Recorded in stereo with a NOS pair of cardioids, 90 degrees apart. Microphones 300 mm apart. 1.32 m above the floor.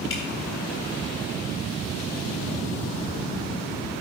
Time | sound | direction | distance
0.1 | dripping | 45° left | 3 m